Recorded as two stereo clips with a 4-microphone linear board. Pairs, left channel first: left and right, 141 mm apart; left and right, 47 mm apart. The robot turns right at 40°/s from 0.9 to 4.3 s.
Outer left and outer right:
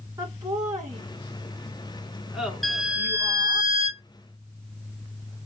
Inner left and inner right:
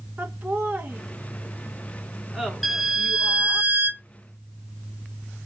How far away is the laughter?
About 1.4 m.